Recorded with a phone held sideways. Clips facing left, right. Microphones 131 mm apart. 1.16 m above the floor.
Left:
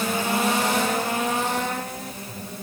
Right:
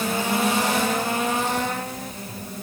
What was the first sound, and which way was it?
Only background noise.